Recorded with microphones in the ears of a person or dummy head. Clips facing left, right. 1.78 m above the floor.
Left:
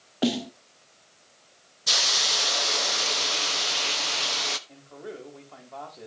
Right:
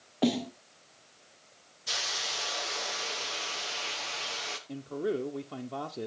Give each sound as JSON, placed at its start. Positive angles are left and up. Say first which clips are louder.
{"t": 0.2, "sound": "a snare drum", "louder": "left 2 dB", "side_deg": 5, "distance_m": 0.6}
{"t": 1.9, "sound": "a hiss", "louder": "left 7 dB", "side_deg": 65, "distance_m": 1.0}
{"t": 4.7, "sound": "a man speaking", "louder": "right 9 dB", "side_deg": -50, "distance_m": 1.1}